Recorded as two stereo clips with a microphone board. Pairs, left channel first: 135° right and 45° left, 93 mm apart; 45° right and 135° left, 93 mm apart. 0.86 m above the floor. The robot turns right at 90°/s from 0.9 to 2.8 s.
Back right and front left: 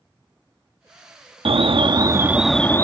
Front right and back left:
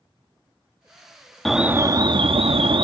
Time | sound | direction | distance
1.4 | an alarm | 40° left | ?